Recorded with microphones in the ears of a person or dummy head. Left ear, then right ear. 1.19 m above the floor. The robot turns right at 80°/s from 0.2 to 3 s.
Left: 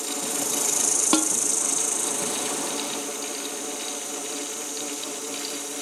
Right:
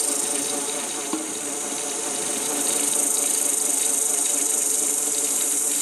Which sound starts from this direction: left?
A snare drum, at 1.1 s.